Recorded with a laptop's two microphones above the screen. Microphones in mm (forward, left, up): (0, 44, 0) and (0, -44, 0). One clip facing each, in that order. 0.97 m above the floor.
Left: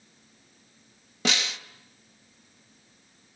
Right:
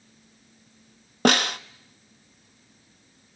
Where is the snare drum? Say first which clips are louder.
Right 9 dB; 55° right (ahead or behind), 0.6 m.